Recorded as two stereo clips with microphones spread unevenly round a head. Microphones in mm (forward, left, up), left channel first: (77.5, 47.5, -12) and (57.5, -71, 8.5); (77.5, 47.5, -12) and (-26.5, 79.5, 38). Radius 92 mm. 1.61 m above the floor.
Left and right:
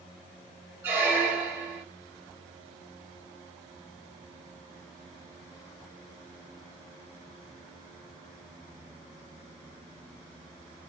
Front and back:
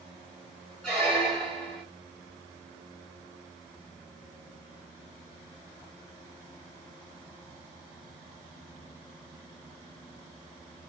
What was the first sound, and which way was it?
A squeak, 145° right.